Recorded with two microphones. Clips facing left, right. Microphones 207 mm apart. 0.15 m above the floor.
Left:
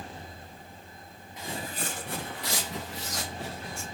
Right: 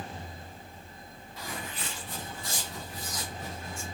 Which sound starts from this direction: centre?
Footsteps, at 1.4 s.